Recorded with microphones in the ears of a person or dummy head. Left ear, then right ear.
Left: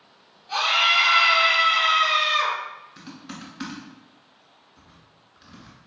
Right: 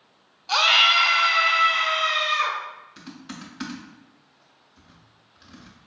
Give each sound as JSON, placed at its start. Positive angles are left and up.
{"t": 0.5, "sound": "a scream", "side_deg": -60, "distance_m": 0.7}
{"t": 3.0, "sound": "typing on a keyboard", "side_deg": 0, "distance_m": 0.5}